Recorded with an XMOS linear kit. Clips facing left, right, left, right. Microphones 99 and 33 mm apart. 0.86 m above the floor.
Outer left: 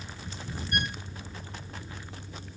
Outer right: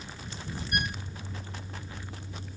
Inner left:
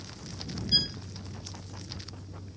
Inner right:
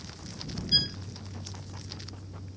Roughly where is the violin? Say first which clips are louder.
Even, inner right 1 dB; centre.